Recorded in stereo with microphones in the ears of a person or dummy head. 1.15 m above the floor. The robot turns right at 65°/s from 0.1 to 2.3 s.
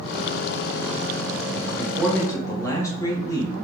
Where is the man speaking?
20° right, 1.6 m; by 3.5 s 20° left, 1.6 m.